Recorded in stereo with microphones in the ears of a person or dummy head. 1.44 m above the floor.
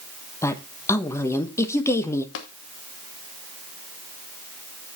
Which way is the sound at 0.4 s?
15° left (ahead or behind).